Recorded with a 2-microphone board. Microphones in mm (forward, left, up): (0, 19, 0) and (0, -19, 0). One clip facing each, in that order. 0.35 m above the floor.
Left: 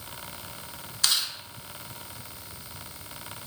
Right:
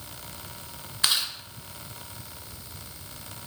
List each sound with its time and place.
1.0 s chewing: 25° right (ahead or behind), 0.6 m